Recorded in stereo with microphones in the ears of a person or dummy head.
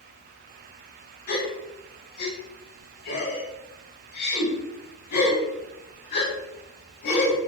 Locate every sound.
1.3 s a gasp: 55° left (ahead or behind), 3.5 m